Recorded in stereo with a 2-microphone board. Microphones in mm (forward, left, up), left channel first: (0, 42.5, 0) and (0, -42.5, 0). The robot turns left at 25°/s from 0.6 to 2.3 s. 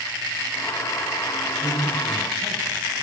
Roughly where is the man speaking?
Centre.